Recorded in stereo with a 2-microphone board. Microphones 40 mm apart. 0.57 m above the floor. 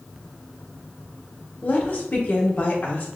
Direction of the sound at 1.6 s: 45° left (ahead or behind).